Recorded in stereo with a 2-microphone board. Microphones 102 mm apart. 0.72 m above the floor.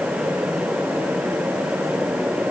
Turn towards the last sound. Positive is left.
No sound to turn to.